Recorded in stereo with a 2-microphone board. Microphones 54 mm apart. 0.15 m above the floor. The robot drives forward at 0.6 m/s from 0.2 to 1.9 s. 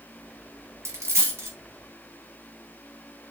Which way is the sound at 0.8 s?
55° right (ahead or behind).